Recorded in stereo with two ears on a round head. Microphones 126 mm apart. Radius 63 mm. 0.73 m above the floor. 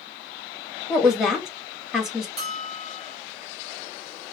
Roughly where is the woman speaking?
Centre.